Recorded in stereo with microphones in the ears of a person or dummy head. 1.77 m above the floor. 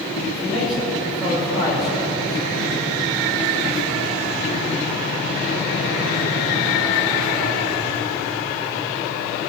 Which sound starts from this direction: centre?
A man speaking, at 0.3 s.